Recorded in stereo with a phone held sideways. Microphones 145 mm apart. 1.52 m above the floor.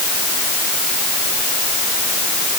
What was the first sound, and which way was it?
Only background noise.